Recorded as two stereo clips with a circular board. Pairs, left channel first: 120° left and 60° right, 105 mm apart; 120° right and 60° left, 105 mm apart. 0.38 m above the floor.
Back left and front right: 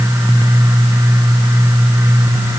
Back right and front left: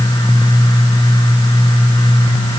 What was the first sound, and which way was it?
Only background noise.